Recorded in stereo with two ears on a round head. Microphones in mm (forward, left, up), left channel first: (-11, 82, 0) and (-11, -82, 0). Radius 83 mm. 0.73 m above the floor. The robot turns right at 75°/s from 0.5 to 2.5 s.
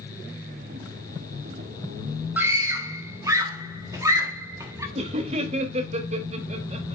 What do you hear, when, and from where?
2.4 s a scream: 10° right (ahead or behind), 1.3 m; by 4.8 s 15° right (ahead or behind), 1.3 m
5.0 s laughter: 35° right (ahead or behind), 1.2 m